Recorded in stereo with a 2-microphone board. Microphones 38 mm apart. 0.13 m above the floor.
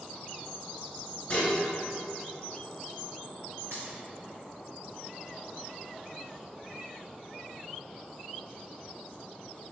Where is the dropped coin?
85° right, 1.5 m.